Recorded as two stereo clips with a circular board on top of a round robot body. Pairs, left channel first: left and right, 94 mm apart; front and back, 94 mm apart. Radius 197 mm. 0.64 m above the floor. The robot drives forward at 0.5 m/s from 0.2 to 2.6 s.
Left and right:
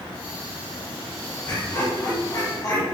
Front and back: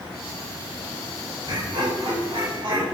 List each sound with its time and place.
1.5 s laughter: 155° left, 4.5 m; by 2.9 s 160° left, 5 m